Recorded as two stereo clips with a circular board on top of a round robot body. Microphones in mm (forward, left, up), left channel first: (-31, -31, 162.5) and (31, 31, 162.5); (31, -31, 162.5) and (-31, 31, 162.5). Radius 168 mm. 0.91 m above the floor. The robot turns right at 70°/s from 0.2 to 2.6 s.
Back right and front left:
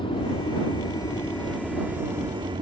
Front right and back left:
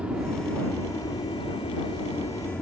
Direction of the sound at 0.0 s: 145° right.